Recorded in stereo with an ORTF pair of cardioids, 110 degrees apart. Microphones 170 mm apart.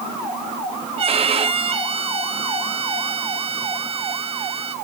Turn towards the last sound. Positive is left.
turn(degrees=-35)